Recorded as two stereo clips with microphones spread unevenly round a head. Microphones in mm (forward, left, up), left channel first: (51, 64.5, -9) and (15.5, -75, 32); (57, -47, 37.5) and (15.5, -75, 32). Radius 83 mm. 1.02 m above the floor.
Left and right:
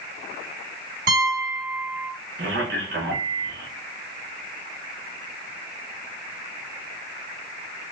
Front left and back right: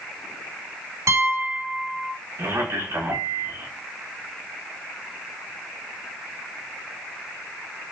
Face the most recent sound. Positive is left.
turn(degrees=-135)